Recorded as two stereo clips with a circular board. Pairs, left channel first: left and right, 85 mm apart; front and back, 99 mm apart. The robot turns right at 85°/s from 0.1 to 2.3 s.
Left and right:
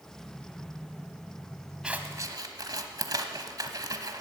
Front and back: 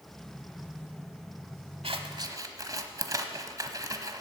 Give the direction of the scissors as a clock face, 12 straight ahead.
6 o'clock.